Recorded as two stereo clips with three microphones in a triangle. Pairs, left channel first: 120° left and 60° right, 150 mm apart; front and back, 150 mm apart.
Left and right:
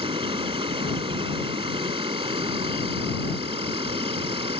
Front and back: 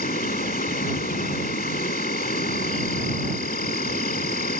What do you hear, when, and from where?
0.0 s an insect: 10° right